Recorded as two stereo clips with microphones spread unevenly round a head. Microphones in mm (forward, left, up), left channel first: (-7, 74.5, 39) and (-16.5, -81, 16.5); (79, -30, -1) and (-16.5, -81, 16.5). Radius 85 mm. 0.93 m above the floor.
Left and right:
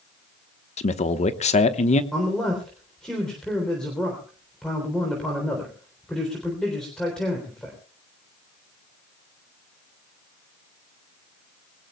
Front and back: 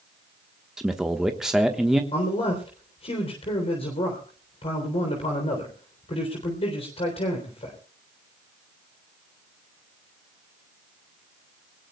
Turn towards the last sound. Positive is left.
turn(degrees=0)